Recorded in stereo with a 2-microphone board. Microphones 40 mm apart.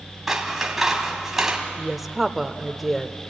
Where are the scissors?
10° right (ahead or behind), 2.5 m.